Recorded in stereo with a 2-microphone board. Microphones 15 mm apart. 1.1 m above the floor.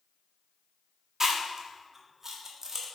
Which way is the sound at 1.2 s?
30° right (ahead or behind).